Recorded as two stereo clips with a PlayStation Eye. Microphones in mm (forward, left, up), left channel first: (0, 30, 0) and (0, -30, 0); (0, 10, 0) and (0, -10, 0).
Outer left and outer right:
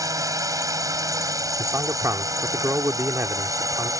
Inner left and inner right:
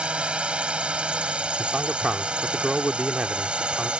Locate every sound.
0.0 s a drone: 70° right (ahead or behind)
1.6 s a man speaking: 55° right (ahead or behind)